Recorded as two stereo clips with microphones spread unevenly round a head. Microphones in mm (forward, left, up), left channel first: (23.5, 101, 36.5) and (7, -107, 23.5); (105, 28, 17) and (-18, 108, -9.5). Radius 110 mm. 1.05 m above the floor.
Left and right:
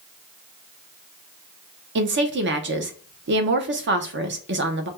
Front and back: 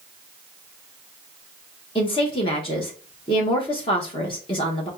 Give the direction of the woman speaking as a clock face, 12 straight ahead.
3 o'clock.